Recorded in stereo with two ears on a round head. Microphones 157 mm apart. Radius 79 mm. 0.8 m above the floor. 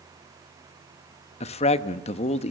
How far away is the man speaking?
About 0.8 m.